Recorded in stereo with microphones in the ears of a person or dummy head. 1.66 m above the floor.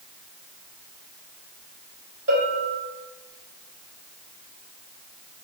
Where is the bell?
35° right (ahead or behind), 1.9 m.